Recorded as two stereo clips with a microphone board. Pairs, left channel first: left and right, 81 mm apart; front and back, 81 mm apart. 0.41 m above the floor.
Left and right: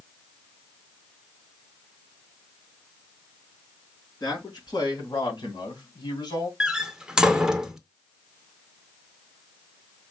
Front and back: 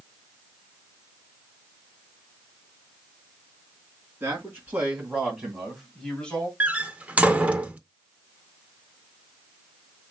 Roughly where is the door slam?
Behind right.